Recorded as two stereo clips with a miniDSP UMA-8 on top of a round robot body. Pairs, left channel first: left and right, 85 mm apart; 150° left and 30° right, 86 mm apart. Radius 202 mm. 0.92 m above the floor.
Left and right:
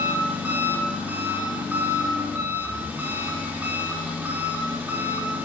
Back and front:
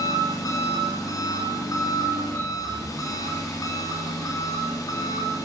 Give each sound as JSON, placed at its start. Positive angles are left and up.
{"t": 0.0, "sound": "an engine running", "azimuth_deg": -160, "distance_m": 2.5}